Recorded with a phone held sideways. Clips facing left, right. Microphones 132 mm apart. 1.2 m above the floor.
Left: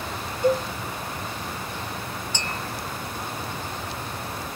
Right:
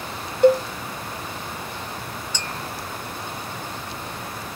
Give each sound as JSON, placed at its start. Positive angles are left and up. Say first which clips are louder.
{"t": 0.4, "sound": "a cowbell", "louder": "right 6 dB", "side_deg": -65, "distance_m": 0.6}
{"t": 2.3, "sound": "tapping", "louder": "left 1 dB", "side_deg": 55, "distance_m": 2.0}